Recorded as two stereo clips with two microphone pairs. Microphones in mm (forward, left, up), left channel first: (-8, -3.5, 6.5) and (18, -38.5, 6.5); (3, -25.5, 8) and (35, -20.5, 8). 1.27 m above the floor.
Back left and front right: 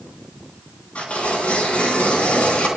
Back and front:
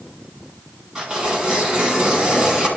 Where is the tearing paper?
70° left, 3 m.